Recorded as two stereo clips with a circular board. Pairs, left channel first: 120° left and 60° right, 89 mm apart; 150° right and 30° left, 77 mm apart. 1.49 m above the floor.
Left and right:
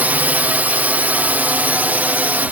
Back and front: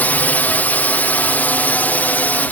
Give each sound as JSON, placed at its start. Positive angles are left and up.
{"t": 0.0, "sound": "a drone", "azimuth_deg": -110}